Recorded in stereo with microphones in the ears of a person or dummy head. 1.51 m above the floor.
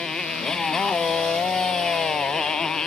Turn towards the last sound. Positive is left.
turn(degrees=5)  # may be behind; listen again after turning